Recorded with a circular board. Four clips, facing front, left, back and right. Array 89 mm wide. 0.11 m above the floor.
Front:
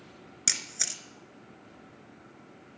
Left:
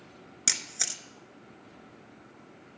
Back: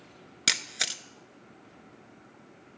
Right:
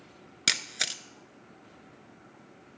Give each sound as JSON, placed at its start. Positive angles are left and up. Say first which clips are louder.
{"t": 0.5, "sound": "a camera shutter", "louder": "right 5 dB, back 7 dB", "azimuth_deg": -140, "distance_m": 0.5}